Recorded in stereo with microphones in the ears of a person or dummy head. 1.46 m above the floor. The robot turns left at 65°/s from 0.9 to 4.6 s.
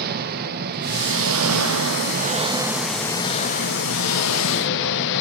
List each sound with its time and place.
0.0 s an engine running: 55° right, 1.3 m; by 5.2 s 65° left, 1.3 m